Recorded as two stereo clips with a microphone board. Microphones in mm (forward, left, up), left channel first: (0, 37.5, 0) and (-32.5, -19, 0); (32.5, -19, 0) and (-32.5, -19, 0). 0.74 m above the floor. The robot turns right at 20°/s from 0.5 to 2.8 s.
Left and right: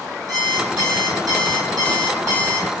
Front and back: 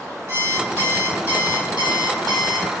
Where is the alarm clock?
130° right, 1.5 m; by 2.7 s 90° right, 1.5 m.